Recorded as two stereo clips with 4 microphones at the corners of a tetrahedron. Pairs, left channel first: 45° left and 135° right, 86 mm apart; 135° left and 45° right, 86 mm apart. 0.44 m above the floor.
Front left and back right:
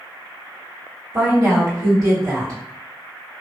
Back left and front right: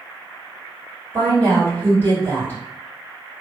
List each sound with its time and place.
1.1 s a woman speaking: 165° right, 1.6 m